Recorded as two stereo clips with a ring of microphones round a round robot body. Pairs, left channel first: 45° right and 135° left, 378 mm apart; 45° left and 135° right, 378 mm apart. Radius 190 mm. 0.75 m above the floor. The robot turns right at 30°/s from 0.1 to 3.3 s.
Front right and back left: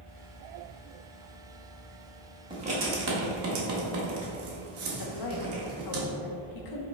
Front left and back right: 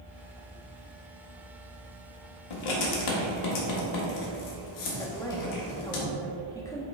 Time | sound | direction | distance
2.5 | writing | 60° left | 1.7 m
5.0 | a woman speaking | 35° right | 1.1 m